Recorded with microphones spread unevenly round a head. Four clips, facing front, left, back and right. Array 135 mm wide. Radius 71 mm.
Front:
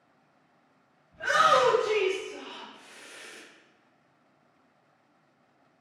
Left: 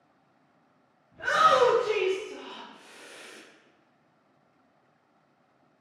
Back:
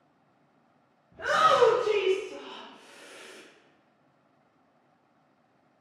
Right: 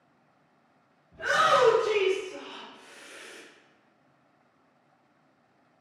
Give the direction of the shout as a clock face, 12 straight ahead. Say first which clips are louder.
Left 1 dB, even; 6 o'clock.